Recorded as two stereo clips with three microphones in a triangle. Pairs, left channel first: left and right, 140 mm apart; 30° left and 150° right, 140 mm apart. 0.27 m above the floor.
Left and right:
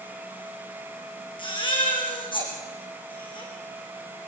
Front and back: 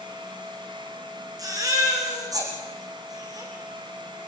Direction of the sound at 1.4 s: 145° left.